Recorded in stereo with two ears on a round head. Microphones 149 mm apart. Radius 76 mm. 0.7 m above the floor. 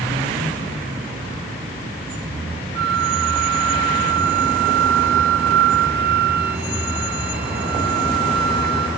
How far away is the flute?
About 1.2 m.